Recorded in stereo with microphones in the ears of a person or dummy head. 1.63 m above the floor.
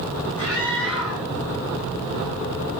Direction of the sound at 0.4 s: 70° left (ahead or behind).